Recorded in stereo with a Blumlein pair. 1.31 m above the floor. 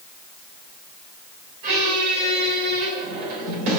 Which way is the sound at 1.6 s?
45° right.